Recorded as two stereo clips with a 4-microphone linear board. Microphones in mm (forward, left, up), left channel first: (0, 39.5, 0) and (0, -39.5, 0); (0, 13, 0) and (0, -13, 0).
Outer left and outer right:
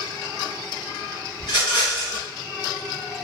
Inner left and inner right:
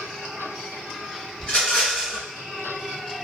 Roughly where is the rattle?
Left.